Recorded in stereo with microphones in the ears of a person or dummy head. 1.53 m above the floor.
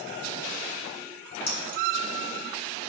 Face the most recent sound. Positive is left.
turn(degrees=60)  # may be behind; listen again after turning